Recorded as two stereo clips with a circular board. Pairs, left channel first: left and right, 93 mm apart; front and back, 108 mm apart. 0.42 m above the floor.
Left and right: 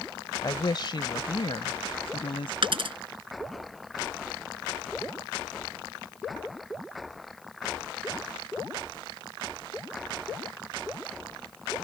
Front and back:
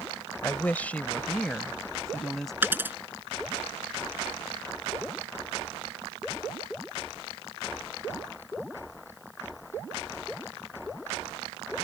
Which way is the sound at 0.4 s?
65° left.